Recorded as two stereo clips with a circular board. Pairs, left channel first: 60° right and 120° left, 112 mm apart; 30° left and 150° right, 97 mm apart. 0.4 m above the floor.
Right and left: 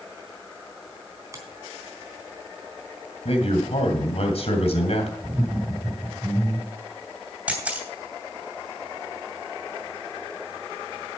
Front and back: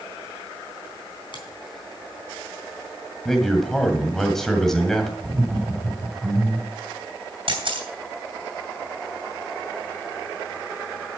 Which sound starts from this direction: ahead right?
A man speaking, at 3.2 s.